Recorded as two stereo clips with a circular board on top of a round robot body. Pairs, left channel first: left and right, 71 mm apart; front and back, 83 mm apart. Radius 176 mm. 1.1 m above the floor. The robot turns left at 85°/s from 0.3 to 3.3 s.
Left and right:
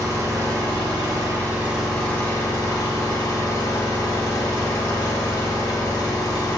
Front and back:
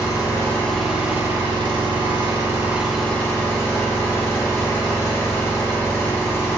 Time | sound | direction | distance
0.0 | an engine running | 50° right | 1.1 m